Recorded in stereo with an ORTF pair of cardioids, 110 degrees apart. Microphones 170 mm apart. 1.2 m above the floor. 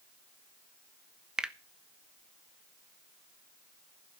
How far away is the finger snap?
About 1.0 m.